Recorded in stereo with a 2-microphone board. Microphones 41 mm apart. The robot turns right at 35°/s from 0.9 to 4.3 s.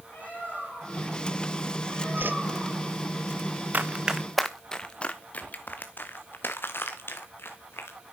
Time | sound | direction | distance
0.1 | a bird | 135° left | 6.5 m
2.2 | a whoosh | 60° right (ahead or behind) | 0.5 m
3.7 | running footsteps | 45° right (ahead or behind) | 0.9 m